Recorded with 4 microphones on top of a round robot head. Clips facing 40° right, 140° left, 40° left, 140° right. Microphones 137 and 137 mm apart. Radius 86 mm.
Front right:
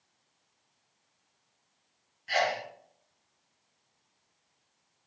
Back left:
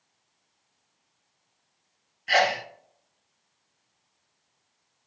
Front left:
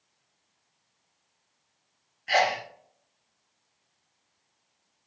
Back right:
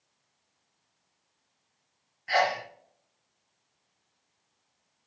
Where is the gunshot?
No gunshot in this recording.